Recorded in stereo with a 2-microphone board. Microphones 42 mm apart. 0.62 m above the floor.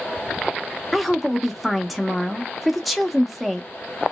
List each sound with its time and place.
0.9 s a woman speaking: 5° right (ahead or behind), 0.5 m